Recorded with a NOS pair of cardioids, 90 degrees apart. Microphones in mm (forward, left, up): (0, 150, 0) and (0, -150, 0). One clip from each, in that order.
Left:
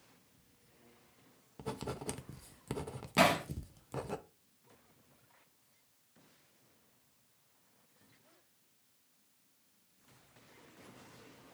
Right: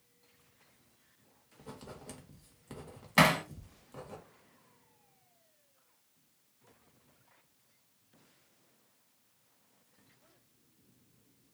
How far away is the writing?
About 0.5 m.